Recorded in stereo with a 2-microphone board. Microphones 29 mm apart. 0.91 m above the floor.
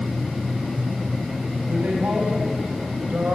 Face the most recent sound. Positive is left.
turn(degrees=-80)